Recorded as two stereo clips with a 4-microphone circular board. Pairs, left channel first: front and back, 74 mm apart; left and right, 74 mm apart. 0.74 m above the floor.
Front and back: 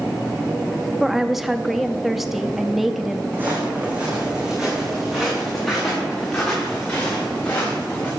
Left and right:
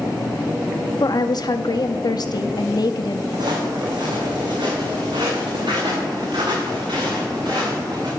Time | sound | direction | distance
1.0 | a woman speaking | 95° left | 0.7 m
3.3 | footsteps | 115° right | 3.5 m